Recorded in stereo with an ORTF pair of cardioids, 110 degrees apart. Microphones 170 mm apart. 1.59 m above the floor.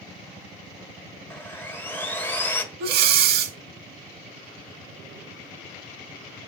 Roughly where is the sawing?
Ahead.